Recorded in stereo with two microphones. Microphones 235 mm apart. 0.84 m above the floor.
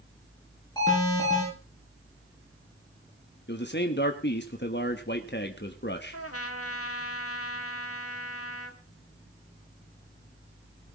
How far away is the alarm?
About 7.5 m.